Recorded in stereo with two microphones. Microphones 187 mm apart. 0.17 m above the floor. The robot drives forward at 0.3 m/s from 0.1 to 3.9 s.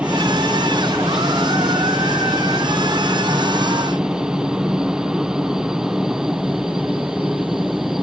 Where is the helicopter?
5° right (ahead or behind); by 8.0 s centre (ahead or behind).